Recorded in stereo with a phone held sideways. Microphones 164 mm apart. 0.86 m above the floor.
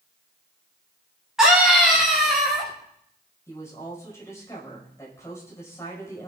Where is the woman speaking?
15° left (ahead or behind), 5 m.